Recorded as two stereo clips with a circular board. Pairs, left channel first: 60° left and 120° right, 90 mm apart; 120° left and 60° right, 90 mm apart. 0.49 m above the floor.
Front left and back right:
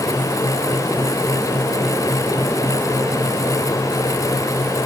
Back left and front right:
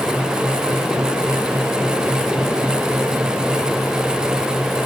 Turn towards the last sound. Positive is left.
No sound to turn to.